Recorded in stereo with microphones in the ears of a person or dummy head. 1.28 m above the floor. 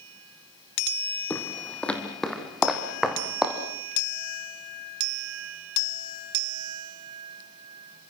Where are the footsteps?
10° left (ahead or behind), 2.5 m; by 3.6 s 5° right (ahead or behind), 3.5 m.